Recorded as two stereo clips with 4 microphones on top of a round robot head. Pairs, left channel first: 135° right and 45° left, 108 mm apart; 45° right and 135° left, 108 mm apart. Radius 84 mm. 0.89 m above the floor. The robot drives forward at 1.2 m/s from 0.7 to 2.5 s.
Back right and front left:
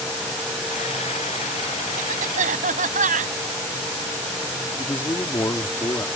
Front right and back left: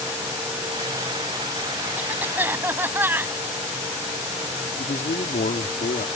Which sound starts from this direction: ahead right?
A man speaking, at 4.8 s.